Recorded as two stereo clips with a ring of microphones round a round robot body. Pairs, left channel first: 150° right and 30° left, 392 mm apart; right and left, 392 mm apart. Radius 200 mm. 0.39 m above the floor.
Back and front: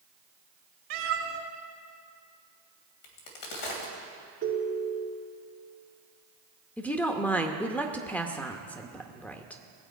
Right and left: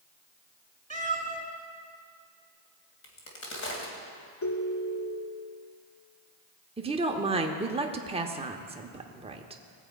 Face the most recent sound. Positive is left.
turn(degrees=130)